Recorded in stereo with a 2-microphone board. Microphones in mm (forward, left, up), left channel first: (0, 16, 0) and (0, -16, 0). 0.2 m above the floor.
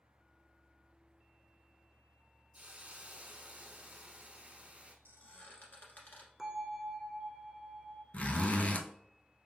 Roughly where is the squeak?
Left.